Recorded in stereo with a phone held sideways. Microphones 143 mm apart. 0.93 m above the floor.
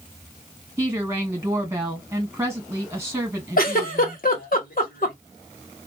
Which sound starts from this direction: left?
A giggle, at 3.6 s.